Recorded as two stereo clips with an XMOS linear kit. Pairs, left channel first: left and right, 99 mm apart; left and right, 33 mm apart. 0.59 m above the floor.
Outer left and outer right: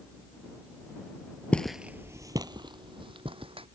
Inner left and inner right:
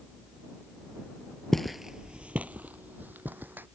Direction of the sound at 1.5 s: 15° left (ahead or behind).